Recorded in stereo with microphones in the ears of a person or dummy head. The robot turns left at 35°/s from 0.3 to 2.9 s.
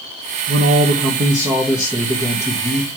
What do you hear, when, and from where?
0.5 s a man speaking: 120° right, 0.9 m; by 3.0 s 155° left, 0.9 m